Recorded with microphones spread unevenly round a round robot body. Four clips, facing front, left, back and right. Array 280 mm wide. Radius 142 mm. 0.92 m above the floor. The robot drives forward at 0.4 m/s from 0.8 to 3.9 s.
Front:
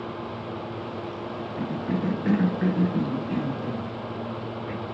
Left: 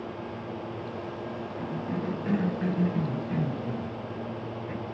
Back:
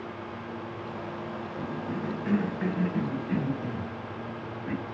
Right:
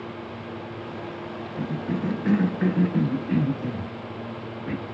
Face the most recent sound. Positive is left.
turn(degrees=-95)